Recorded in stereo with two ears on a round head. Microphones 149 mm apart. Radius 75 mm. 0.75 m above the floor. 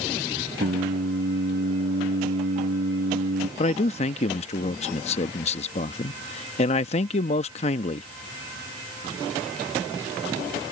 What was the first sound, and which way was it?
Singing, 60° right (ahead or behind).